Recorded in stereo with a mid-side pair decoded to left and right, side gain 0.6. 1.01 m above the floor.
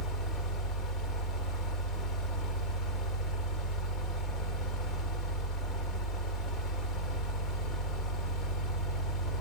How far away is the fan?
About 1.4 m.